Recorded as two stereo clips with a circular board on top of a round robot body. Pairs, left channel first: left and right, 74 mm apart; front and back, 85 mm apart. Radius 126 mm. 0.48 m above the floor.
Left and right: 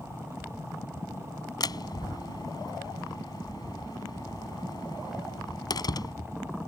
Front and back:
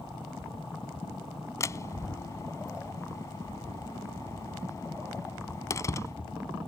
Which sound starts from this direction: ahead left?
A door slam, at 1.6 s.